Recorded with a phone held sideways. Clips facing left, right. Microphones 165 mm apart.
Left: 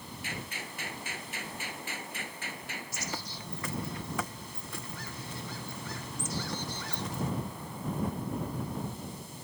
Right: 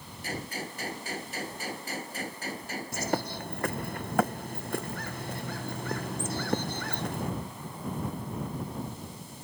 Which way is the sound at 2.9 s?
65° right (ahead or behind).